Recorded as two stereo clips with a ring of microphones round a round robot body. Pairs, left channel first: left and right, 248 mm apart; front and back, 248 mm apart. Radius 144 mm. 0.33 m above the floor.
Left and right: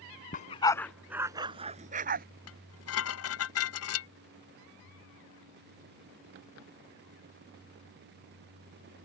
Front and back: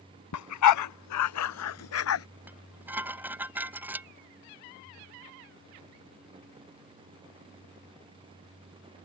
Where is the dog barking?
30° left; by 2.2 s 30° right.